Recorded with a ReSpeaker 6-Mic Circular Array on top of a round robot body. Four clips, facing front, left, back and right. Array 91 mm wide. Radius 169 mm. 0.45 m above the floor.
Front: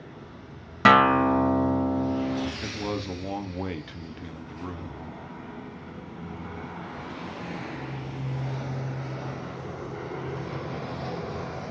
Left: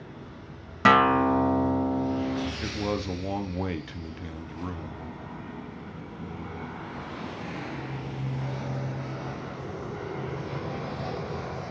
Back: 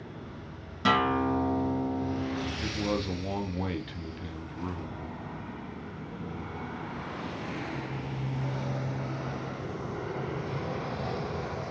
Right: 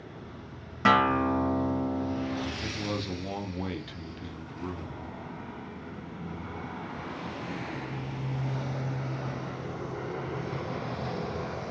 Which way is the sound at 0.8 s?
25° left.